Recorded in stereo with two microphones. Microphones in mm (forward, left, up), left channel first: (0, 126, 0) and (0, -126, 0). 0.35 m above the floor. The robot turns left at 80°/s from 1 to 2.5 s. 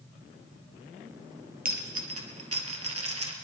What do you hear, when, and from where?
1.6 s a dropped coin: 35° right (ahead or behind), 1.8 m; by 3.3 s 75° right (ahead or behind), 1.8 m